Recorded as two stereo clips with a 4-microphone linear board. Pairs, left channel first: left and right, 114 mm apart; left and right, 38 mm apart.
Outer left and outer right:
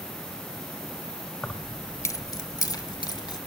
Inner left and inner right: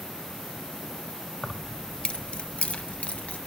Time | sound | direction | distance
1.4 | keys jangling | 10° left (ahead or behind) | 0.6 m